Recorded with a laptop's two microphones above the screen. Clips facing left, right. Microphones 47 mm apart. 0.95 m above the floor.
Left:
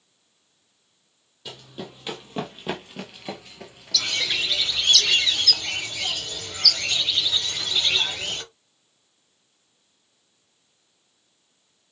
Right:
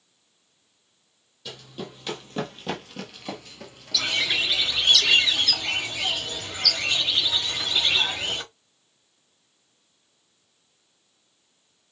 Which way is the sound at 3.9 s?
15° right (ahead or behind).